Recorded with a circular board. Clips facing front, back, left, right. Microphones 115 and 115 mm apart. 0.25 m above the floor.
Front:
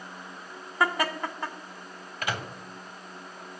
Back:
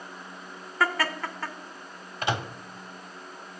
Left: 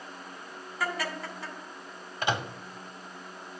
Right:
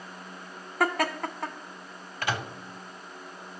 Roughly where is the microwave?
Behind left.